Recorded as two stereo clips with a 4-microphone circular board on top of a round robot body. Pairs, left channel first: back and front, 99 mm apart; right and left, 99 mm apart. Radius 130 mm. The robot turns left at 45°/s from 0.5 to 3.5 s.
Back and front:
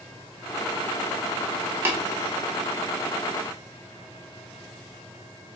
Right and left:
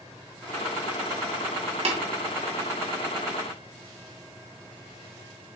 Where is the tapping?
70° left, 2 m; by 2.0 s 65° left, 2 m.